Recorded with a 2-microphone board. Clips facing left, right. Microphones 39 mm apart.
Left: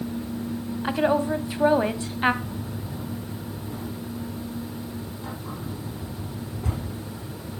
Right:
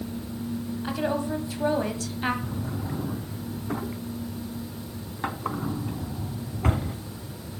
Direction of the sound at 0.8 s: 30° left (ahead or behind).